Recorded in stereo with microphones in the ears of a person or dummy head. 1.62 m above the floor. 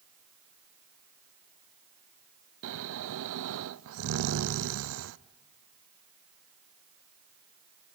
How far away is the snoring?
About 0.6 m.